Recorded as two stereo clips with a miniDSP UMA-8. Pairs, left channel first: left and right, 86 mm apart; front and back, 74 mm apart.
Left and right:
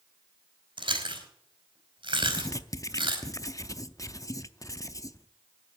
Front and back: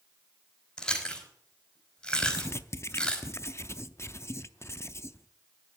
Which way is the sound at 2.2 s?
45° left.